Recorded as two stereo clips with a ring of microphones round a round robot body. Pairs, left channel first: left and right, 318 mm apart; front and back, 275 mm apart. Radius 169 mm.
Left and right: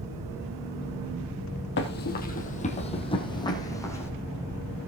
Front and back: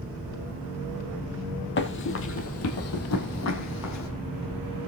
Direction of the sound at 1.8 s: 40° left.